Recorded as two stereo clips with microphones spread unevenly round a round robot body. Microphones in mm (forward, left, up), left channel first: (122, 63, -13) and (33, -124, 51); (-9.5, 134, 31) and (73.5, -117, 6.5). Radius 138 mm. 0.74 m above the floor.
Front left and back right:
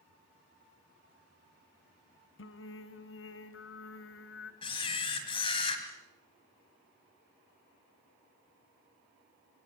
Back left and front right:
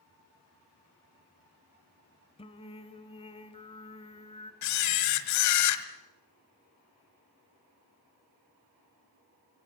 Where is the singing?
40° left, 1.5 m.